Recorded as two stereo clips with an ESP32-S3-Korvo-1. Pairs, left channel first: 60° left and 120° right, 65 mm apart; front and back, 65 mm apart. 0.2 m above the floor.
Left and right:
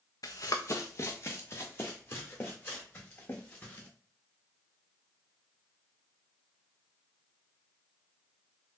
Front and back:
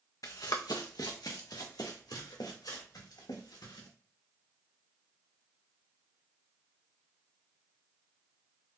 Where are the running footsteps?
35° left, 0.7 m; by 3.9 s 5° right, 3 m.